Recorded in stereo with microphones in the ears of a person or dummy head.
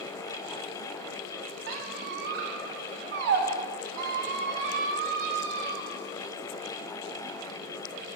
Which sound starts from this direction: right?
A squeak, at 1.7 s.